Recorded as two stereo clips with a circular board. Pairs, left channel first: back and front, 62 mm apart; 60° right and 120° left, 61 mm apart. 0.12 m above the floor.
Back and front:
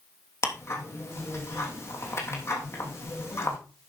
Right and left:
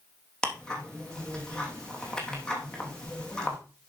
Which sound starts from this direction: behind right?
Ticking, at 0.4 s.